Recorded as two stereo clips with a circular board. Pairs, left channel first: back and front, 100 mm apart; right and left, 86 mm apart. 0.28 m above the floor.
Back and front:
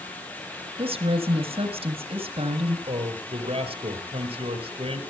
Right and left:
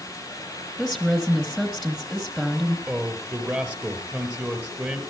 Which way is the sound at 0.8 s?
5° left.